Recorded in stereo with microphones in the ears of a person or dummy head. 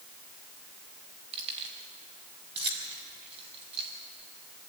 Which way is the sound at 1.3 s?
35° right (ahead or behind).